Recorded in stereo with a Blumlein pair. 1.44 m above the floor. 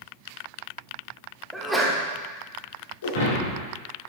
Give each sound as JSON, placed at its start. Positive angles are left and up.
{"t": 1.5, "sound": "a sneeze", "azimuth_deg": -5, "distance_m": 1.7}
{"t": 3.0, "sound": "breaking glass", "azimuth_deg": 65, "distance_m": 2.5}